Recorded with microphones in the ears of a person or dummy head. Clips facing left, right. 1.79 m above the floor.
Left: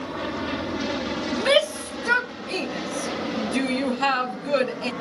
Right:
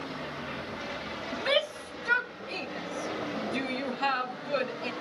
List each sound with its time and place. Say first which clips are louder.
0.0 s an aircraft: left 9 dB; 70° left (ahead or behind); by 5.0 s 55° left (ahead or behind)
1.3 s a shout: left 8 dB; 65° left (ahead or behind)